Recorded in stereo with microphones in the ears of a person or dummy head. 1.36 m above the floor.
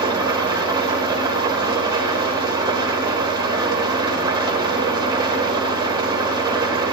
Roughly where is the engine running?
Centre.